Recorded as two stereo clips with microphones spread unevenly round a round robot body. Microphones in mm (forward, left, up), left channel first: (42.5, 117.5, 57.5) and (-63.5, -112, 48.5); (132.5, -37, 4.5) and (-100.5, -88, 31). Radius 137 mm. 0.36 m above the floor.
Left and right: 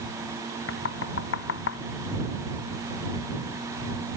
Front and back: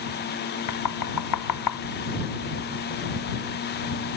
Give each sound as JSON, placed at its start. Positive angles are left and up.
{"t": 0.7, "sound": "knocking", "azimuth_deg": 20}